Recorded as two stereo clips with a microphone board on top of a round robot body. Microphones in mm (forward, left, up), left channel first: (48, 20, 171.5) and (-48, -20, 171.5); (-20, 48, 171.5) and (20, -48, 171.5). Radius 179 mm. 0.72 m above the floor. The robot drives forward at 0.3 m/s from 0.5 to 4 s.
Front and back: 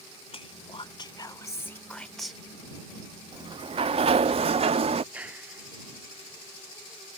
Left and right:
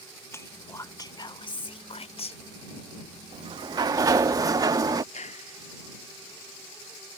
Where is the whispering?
50° left; by 2.4 s 115° left.